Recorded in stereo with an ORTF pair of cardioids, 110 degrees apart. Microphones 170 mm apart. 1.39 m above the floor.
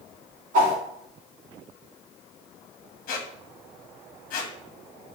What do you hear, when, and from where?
0.5 s a whoosh: 55° right, 1.9 m
3.1 s a squeak: 55° left, 0.9 m